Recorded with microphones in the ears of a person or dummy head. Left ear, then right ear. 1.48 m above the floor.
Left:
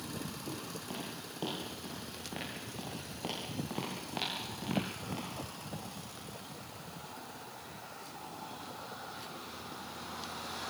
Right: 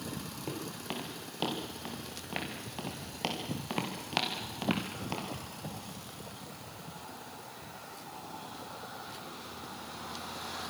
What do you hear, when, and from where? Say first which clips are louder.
0.5 s footsteps: right 3 dB; 55° right (ahead or behind), 7 m; by 5.3 s 70° right (ahead or behind), 5 m